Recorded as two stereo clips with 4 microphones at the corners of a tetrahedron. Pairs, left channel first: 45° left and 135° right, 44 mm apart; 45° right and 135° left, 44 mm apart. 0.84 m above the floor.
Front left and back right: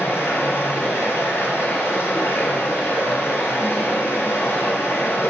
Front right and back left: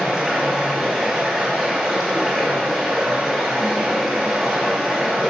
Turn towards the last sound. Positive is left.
turn(degrees=60)